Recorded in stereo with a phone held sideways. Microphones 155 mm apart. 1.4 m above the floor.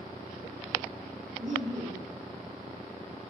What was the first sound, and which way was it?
Laughter, 55° right (ahead or behind).